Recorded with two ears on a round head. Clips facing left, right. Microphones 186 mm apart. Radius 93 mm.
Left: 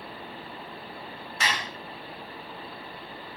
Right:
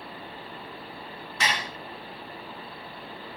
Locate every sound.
1.4 s dishes clattering: 75° right (ahead or behind), 2 m